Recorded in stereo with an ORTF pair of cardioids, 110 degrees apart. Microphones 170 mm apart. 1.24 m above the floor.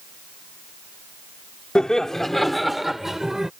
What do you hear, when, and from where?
1.8 s laughter: 5° left; by 3.5 s 5° right